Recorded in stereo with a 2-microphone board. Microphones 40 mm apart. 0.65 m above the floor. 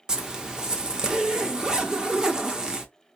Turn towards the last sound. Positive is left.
turn(degrees=-15)  # may be behind; listen again after turning